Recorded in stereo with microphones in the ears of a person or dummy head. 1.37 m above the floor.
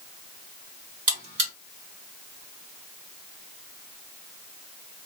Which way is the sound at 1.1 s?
40° right (ahead or behind).